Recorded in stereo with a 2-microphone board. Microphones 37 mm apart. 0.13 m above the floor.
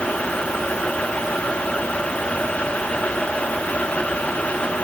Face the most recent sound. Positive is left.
No sound to turn to.